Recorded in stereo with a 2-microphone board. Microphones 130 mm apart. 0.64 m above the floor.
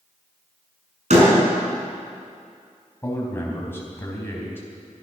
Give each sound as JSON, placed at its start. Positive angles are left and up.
{"t": 1.1, "sound": "a door slam", "side_deg": -65, "distance_m": 5.5}
{"t": 3.0, "sound": "a man speaking", "side_deg": 15, "distance_m": 4.0}